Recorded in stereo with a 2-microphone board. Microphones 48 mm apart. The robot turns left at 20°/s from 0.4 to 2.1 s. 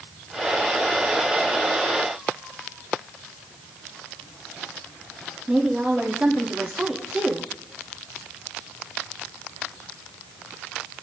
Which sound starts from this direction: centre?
A woman speaking, at 5.5 s.